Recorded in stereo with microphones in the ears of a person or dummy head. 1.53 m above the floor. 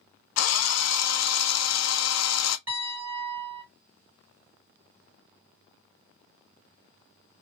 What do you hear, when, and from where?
0.4 s a drill: 85° left, 0.5 m
2.7 s a piano: 5° right (ahead or behind), 1.7 m